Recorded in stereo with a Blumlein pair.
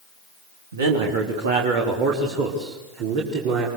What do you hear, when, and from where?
0.7 s a man speaking: 65° right, 3 m; by 3.7 s 45° right, 5.5 m